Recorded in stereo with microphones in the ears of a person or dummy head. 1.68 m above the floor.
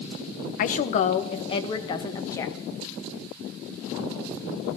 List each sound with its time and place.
0.6 s a woman speaking: 50° left (ahead or behind), 1.2 m; by 2.5 s 20° left (ahead or behind), 1.9 m